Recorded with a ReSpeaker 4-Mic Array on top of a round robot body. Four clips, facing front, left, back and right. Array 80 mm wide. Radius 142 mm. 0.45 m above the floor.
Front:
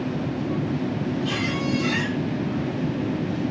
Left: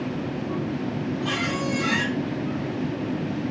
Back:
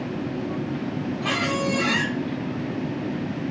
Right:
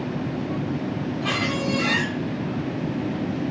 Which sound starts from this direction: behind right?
A squeak, at 1.2 s.